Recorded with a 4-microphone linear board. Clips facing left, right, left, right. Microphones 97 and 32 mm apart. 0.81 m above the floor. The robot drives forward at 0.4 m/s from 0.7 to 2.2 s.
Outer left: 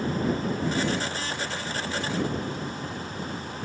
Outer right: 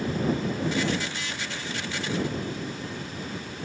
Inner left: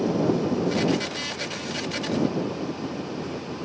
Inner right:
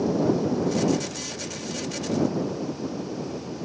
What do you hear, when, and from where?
Only background noise.